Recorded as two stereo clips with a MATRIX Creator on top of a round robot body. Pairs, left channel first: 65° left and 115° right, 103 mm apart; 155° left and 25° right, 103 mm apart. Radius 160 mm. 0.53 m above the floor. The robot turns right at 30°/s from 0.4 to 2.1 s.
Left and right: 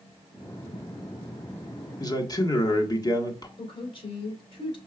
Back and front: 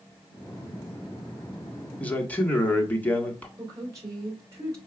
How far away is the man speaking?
About 1.3 m.